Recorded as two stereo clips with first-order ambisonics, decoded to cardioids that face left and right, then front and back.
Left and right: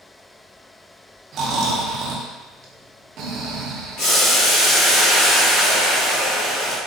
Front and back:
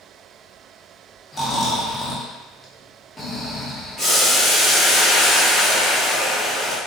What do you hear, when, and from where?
1.3 s snoring: 75° right, 0.6 m
4.0 s boiling: 90° left, 1.6 m